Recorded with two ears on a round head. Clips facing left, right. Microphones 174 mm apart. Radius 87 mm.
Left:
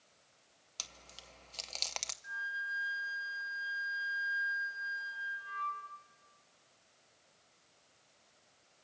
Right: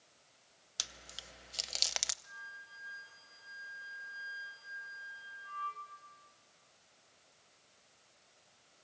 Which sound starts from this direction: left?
A flute, at 2.2 s.